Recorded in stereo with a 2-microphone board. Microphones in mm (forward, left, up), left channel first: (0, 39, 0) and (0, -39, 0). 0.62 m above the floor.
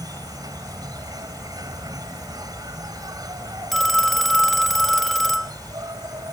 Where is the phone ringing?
5° left (ahead or behind).